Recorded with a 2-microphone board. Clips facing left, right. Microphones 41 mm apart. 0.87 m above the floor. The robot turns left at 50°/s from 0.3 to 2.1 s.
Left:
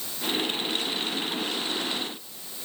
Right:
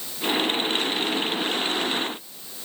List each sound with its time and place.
Only background noise.